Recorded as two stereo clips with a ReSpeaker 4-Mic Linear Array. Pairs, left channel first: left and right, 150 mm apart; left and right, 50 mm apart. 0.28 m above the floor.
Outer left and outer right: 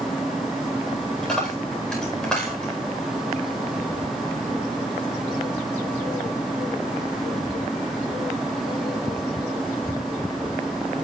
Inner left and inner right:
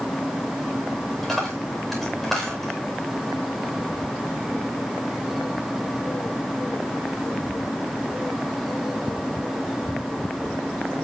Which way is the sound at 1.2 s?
5° left (ahead or behind).